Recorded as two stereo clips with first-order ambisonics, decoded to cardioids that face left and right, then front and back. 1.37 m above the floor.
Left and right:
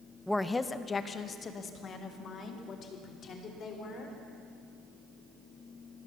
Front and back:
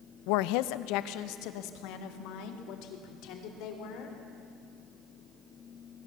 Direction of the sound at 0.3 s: Straight ahead.